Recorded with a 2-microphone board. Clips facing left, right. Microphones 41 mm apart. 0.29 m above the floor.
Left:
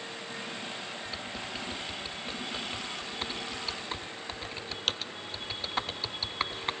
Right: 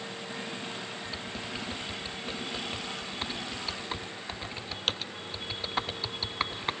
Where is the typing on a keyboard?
Centre (ahead or behind).